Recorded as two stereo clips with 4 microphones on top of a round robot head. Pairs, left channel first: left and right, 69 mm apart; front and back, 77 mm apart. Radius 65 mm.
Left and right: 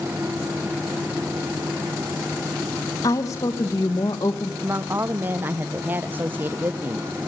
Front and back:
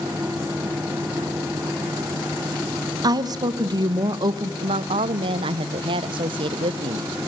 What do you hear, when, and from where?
3.0 s a woman speaking: 145° left, 1.3 m
4.6 s a woman speaking: 160° right, 0.8 m